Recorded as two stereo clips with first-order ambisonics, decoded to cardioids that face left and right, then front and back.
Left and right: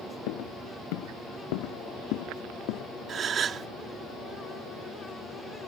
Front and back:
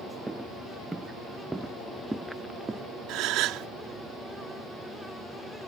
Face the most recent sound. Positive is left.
turn(degrees=-155)